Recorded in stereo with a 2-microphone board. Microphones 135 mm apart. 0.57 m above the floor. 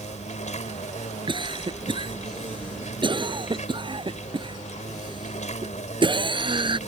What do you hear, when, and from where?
0.0 s an insect: 60° left (ahead or behind)
1.3 s a cough: 35° right (ahead or behind)